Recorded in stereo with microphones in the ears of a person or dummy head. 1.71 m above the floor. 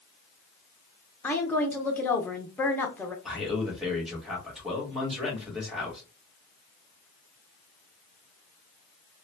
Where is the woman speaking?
10° left (ahead or behind), 0.7 m.